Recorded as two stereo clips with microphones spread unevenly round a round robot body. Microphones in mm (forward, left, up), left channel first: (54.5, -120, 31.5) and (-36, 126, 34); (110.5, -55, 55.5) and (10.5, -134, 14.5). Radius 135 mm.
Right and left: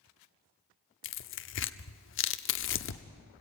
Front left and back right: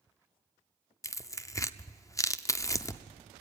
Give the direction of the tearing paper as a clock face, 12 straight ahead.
1 o'clock.